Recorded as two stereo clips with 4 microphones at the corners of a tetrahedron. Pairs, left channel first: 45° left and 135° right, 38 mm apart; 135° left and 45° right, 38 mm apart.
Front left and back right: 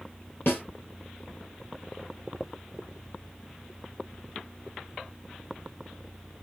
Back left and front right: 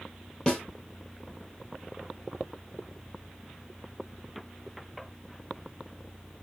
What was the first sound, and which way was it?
A snare drum, 65° left.